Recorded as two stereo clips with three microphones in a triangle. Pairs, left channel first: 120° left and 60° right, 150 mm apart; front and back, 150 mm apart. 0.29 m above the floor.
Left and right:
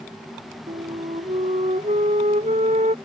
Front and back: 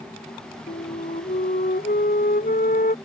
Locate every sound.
0.7 s a flute: 20° right